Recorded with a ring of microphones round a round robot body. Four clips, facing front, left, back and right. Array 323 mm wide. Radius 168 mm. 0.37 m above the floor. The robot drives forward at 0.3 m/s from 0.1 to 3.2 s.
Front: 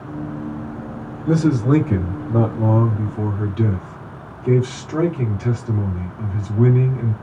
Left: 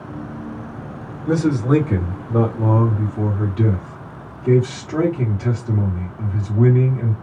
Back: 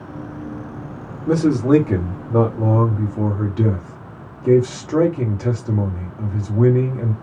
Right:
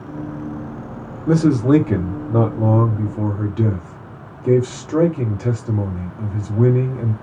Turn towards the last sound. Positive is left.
turn(degrees=-145)